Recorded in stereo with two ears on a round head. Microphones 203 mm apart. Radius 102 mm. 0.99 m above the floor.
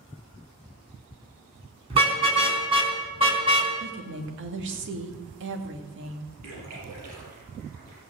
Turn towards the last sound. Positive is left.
turn(degrees=-85)